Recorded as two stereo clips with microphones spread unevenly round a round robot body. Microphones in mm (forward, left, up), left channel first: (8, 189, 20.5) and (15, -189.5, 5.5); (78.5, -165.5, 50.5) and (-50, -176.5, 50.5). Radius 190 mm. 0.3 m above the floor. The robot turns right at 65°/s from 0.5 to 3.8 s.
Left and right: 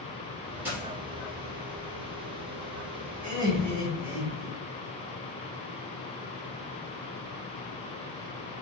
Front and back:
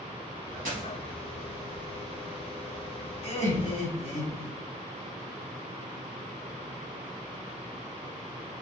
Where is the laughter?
25° right, 3.5 m; by 4.5 s 15° left, 3.5 m.